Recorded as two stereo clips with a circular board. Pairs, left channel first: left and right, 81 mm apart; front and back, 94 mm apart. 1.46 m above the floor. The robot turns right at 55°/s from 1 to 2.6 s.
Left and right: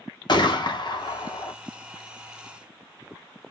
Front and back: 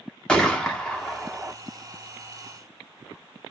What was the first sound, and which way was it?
A gunshot, 80° left.